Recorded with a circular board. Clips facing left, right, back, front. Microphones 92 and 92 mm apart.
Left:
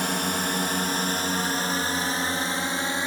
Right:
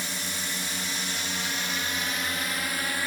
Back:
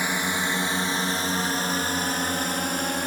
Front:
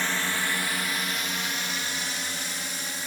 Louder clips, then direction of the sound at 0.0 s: Left 9 dB, back 3 dB; 105° left.